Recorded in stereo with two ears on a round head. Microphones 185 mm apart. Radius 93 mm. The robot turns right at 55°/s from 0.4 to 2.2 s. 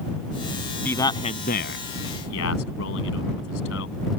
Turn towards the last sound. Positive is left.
turn(degrees=75)  # may be behind; listen again after turning